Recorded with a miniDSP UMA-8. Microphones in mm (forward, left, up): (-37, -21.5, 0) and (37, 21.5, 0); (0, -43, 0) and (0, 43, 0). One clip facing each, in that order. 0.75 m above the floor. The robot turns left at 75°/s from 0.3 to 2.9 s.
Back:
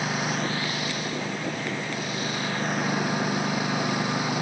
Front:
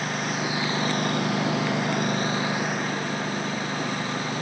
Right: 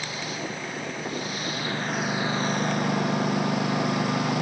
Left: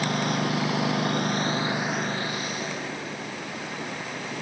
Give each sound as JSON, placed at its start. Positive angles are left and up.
{"t": 0.0, "sound": "a lawn mower", "azimuth_deg": 125}